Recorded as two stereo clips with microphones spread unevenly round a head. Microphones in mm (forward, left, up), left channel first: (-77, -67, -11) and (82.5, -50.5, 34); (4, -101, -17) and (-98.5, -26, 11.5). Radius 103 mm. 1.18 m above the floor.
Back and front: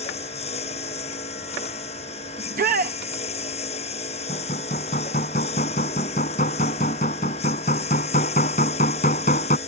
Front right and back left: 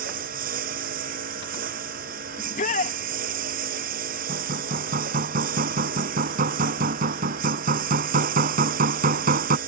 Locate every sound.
0.0 s a lawn mower: 125° left
2.4 s a shout: 30° right
4.3 s hammering: 125° left